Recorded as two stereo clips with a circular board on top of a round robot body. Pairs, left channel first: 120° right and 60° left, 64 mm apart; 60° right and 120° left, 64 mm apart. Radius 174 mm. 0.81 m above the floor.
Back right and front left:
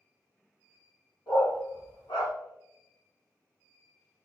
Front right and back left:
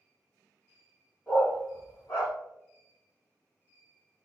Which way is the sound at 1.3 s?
120° right.